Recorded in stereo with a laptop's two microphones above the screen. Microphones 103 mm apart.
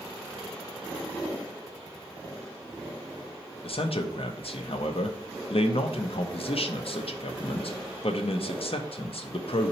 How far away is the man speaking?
About 0.5 m.